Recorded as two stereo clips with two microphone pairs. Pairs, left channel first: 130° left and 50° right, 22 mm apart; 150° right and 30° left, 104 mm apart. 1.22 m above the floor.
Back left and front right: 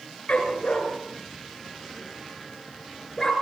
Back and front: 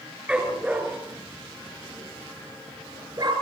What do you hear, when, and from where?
0.3 s a dog barking: 110° left, 4.5 m; by 3.3 s 75° left, 5 m